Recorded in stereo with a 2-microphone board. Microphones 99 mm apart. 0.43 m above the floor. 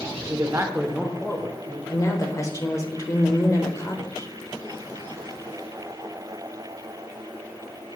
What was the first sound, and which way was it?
A man speaking, 45° right (ahead or behind).